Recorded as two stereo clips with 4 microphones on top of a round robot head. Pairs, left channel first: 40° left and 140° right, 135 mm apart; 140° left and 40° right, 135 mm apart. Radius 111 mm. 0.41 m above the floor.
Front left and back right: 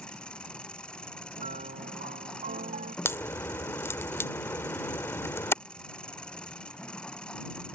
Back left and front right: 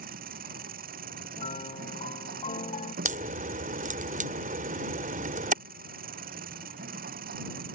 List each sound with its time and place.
0.0 s an engine running: 40° right
1.4 s a piano: 175° right
3.0 s a crack: 30° right